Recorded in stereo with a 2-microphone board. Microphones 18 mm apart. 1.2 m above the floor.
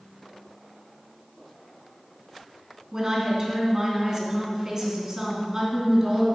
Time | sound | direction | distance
2.9 | a woman speaking | 40° right (ahead or behind) | 3 m